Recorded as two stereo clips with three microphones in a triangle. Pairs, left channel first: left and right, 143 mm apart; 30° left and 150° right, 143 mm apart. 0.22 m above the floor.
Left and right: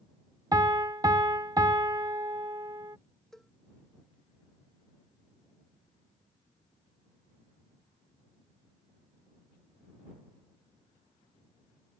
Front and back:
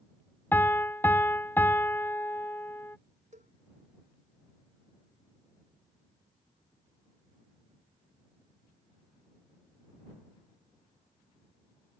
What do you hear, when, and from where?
0.5 s a piano: 40° right
3.3 s a cowbell: 175° left